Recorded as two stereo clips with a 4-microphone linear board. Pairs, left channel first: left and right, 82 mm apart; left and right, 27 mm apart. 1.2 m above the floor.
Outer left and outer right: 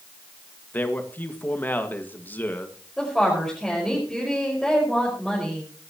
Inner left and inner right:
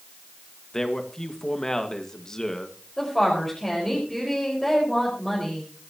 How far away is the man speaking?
About 1.8 m.